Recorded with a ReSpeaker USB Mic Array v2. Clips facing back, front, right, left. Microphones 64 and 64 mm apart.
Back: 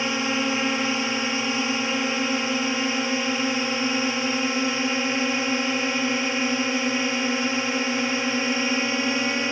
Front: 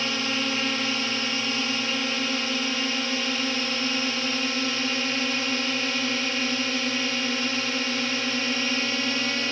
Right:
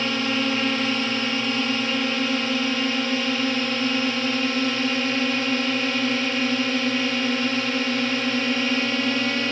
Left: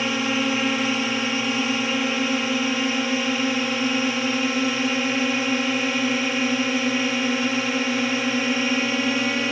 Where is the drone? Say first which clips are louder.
Back 3 dB, left 1 dB; 155° left.